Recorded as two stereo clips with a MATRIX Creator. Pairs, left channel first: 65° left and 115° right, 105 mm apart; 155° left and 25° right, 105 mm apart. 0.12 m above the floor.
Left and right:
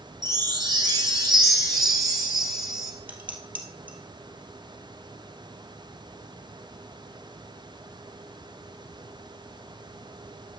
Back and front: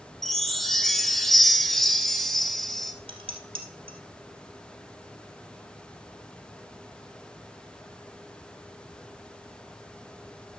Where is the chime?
120° right, 1.7 m.